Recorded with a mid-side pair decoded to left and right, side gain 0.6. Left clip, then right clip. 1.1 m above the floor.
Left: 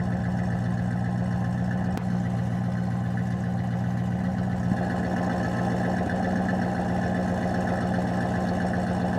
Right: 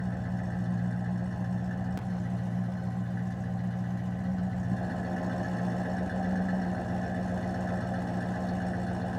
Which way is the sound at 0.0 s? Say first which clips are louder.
Left 6 dB; 40° left.